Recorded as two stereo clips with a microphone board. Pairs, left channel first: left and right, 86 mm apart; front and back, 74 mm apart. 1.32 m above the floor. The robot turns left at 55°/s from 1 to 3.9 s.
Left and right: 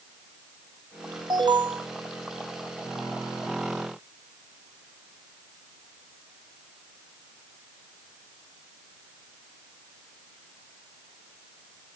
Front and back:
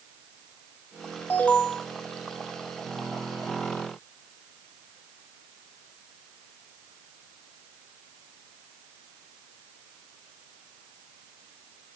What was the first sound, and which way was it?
An alarm, 60° right.